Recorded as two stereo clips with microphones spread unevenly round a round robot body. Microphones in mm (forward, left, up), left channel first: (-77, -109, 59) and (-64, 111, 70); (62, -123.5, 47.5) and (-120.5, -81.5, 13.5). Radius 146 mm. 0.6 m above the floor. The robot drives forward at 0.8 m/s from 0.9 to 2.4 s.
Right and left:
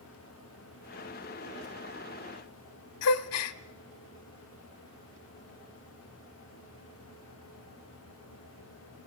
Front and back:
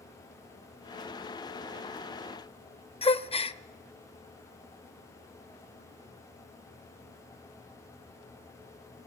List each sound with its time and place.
3.0 s a gasp: 75° right, 0.9 m